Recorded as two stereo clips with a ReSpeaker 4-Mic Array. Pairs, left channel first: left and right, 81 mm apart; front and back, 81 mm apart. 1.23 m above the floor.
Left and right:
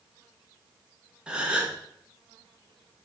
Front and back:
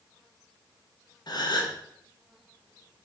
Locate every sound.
1.3 s a gasp: 15° right, 0.7 m